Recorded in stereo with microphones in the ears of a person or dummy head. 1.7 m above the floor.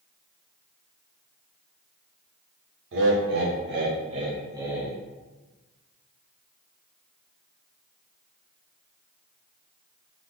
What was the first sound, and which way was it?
Laughter, 60° right (ahead or behind).